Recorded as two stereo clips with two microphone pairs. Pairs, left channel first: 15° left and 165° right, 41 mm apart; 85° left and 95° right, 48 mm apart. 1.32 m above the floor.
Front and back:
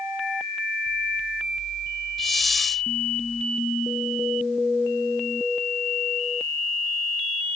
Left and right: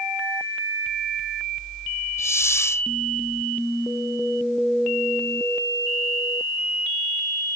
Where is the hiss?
100° left.